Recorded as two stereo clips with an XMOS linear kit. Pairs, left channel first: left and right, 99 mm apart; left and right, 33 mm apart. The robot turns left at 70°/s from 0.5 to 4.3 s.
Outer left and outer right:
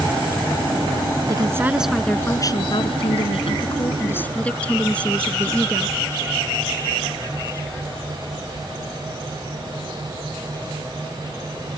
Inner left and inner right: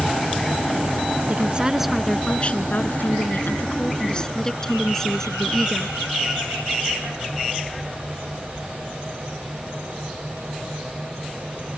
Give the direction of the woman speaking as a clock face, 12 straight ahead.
5 o'clock.